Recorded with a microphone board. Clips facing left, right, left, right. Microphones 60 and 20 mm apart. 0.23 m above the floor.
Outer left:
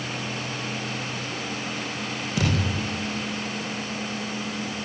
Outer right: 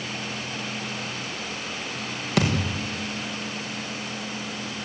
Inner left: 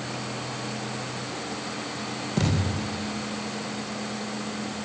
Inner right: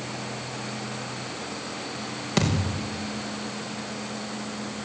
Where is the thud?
80° right, 8 m.